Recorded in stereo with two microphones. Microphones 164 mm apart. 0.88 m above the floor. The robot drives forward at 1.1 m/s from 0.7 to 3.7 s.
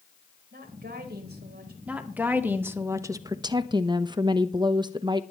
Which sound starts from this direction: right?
A woman speaking, at 0.5 s.